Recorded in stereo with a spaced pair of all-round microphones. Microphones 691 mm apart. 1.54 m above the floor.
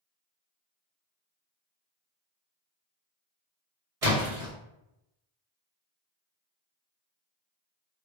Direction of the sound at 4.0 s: 50° right (ahead or behind).